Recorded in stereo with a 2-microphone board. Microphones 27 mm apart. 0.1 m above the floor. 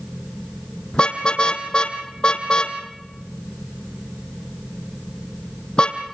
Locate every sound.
0.9 s a car horn: 35° left (ahead or behind), 2.5 m